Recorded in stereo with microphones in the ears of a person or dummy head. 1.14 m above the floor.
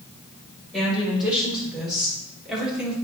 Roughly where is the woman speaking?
Centre.